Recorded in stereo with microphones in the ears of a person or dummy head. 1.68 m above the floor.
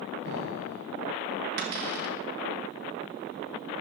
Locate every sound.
0.2 s an explosion: 60° right (ahead or behind), 3 m
1.6 s a cupboard door: 50° right (ahead or behind), 1.5 m